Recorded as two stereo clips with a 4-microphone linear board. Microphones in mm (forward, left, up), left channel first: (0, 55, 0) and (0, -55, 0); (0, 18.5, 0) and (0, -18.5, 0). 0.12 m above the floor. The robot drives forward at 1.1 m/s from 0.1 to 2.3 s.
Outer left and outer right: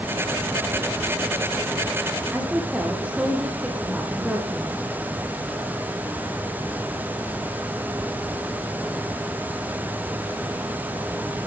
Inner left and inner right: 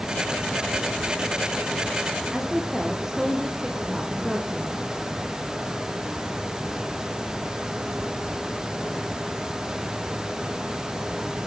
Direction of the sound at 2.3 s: 10° right (ahead or behind).